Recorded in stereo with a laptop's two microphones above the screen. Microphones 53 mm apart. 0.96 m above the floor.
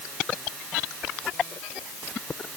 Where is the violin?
No violin in this recording.